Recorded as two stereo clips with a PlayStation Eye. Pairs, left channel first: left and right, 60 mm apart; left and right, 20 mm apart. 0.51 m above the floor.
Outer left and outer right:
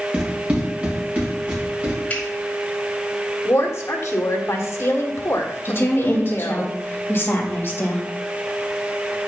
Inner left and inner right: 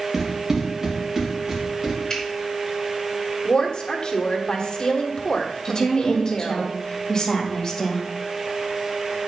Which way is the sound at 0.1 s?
20° right (ahead or behind).